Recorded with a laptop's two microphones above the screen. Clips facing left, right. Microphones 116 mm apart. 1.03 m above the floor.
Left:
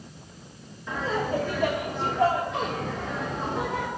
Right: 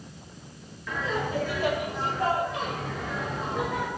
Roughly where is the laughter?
Left.